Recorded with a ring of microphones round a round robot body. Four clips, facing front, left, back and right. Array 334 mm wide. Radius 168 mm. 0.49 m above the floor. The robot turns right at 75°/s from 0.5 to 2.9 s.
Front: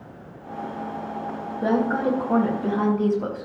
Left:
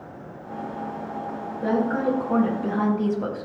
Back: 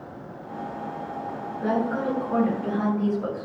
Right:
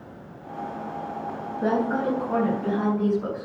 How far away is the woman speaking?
About 4 m.